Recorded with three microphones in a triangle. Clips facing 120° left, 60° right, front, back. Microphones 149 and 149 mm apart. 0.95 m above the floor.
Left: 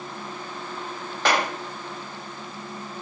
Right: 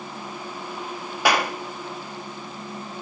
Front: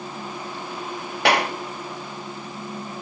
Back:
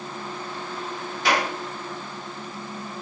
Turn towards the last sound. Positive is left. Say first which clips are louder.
# right 1 dB, front 3 dB
turn(degrees=20)